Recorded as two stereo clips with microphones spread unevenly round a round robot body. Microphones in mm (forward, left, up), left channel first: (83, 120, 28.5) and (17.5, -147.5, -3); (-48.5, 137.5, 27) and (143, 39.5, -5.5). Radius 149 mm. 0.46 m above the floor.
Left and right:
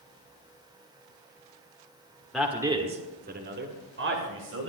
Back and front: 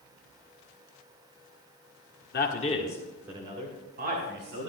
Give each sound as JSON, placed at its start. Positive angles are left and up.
{"t": 2.3, "sound": "a man speaking", "azimuth_deg": 175, "distance_m": 1.5}